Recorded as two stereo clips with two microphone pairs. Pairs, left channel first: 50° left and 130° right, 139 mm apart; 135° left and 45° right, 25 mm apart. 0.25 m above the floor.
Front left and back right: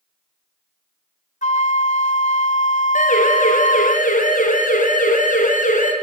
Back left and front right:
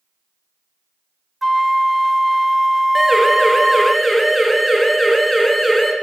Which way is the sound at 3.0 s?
40° left.